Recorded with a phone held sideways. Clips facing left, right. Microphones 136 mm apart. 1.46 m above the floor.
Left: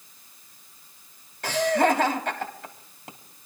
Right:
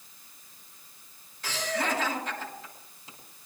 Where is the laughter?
60° left (ahead or behind), 3 m.